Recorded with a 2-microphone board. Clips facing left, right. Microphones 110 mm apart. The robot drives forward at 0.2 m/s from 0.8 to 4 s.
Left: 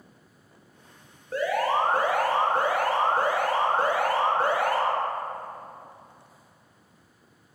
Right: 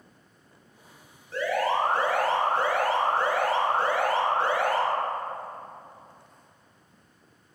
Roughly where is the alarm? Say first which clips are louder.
Left 1 dB; left.